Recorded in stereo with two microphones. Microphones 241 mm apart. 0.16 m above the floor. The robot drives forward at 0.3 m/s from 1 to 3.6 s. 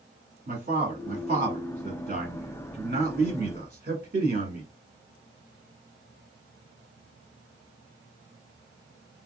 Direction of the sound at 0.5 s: 40° right (ahead or behind).